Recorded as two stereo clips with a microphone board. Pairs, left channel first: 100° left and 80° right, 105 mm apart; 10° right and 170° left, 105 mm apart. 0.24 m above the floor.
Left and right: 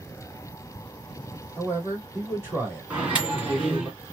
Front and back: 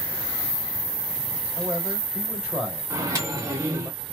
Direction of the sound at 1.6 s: 115° right.